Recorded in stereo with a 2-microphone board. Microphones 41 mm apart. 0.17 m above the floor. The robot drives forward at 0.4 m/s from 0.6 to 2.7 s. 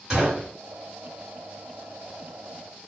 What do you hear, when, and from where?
0.1 s a gunshot: 10° right (ahead or behind), 1.7 m